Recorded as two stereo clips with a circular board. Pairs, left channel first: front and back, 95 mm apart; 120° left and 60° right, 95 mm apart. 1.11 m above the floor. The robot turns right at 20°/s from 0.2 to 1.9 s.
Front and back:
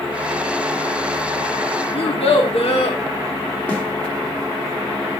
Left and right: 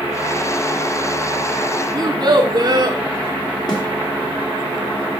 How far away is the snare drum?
About 1.9 m.